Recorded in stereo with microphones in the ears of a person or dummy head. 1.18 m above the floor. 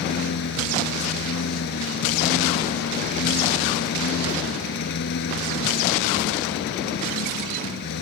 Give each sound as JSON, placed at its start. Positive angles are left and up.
{"t": 0.0, "sound": "a lawn mower", "side_deg": 70}